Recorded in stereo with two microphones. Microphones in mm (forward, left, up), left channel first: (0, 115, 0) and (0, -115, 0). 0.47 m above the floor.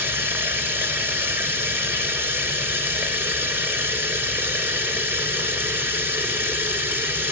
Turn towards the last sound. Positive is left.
turn(degrees=-10)  # may be behind; listen again after turning